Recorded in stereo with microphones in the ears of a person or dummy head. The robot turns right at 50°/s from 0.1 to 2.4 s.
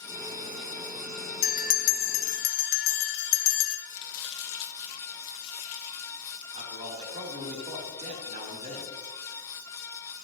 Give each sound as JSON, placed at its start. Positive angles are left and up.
{"t": 1.4, "sound": "a bell", "azimuth_deg": 35, "distance_m": 1.4}
{"t": 3.9, "sound": "chopping", "side_deg": 60, "distance_m": 1.6}
{"t": 6.5, "sound": "a man speaking", "side_deg": -40, "distance_m": 3.0}